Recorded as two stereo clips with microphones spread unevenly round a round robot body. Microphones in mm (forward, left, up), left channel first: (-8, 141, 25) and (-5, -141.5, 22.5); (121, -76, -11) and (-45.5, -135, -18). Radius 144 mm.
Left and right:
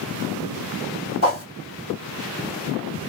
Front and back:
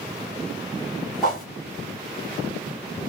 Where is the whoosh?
110° left, 1.8 m.